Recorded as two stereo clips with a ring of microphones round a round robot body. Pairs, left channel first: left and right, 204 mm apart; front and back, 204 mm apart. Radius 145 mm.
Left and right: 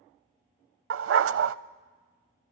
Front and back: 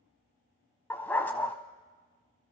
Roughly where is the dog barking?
Right.